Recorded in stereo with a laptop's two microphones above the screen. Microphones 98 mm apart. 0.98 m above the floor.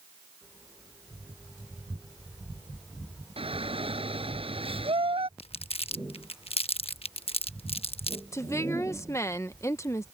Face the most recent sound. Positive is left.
turn(degrees=30)  # may be behind; listen again after turning